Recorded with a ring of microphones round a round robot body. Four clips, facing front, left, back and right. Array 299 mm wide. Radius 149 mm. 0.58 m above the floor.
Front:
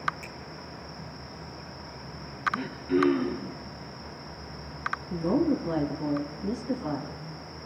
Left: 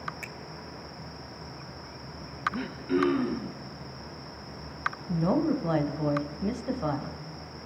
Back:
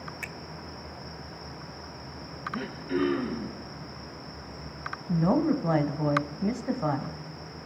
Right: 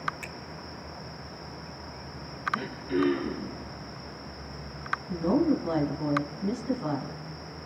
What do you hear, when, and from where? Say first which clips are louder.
0.2 s a finger snap: right 1 dB, back 2 dB; 165° left, 0.8 m
2.5 s throat clearing: even, front 3 dB; 70° left, 4.5 m
5.1 s a woman speaking: right 1 dB, back 1 dB; 150° left, 2.5 m